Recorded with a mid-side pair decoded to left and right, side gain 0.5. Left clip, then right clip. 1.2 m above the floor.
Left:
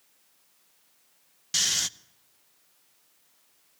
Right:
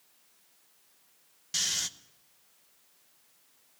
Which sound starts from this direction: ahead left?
Snoring, at 1.5 s.